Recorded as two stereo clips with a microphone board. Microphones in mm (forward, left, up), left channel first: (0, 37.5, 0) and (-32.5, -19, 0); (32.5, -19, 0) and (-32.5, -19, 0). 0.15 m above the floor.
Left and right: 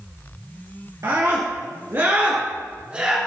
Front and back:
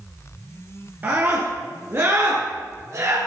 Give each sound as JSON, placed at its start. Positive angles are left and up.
{"t": 1.0, "sound": "a scream", "azimuth_deg": -130, "distance_m": 2.0}